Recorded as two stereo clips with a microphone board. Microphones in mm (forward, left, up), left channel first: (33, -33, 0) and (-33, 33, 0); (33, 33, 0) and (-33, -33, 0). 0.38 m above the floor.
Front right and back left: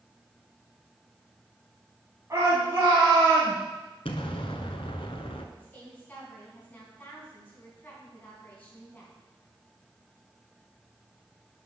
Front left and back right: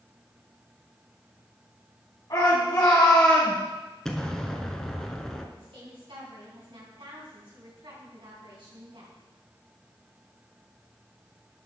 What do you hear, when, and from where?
2.3 s a shout: 80° left, 3.5 m; by 3.6 s 100° left, 3.5 m
4.0 s an explosion: 40° right, 1.0 m
5.6 s a woman speaking: 115° right, 4 m